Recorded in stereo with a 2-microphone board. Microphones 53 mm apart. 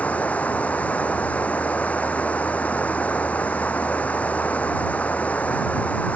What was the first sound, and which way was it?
Running water, 30° left (ahead or behind).